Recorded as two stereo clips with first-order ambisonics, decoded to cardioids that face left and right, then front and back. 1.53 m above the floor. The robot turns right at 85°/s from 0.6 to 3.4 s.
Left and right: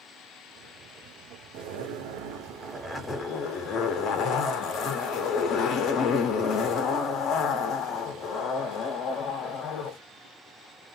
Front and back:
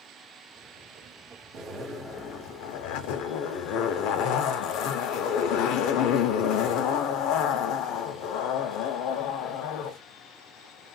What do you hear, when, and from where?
1.5 s a zipper: 125° right, 0.6 m; by 10.0 s 35° left, 0.6 m